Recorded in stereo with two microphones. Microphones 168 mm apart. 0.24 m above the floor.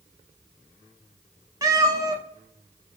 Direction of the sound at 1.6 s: 20° right (ahead or behind).